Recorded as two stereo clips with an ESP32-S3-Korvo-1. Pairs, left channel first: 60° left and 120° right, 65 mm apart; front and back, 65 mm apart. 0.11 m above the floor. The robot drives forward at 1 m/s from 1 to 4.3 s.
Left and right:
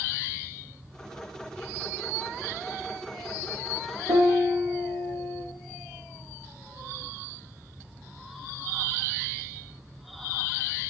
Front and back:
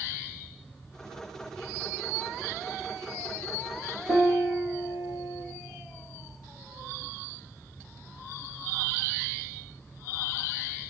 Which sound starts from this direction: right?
A piano, at 4.1 s.